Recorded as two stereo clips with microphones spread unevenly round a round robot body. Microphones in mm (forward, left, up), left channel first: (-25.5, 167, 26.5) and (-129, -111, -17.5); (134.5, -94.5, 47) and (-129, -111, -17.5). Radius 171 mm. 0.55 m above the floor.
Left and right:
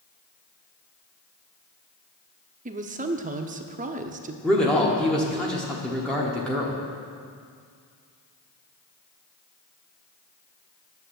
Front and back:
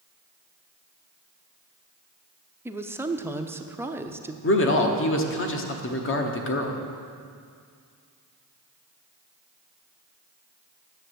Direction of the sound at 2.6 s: 125° right.